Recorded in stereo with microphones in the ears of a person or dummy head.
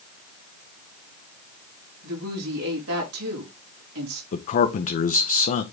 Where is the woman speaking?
80° right, 4 m.